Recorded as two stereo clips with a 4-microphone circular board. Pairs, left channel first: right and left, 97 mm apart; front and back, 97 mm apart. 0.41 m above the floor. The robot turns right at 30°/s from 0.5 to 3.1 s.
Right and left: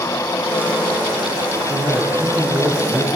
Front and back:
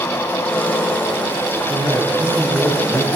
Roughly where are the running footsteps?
I don't hear running footsteps.